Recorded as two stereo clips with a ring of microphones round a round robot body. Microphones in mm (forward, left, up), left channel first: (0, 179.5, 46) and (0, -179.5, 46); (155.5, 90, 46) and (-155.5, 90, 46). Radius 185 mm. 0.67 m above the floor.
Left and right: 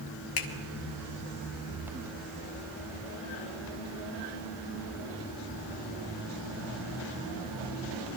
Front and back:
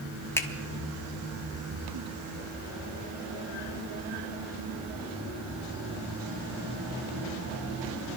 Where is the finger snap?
80° left, 1.3 m.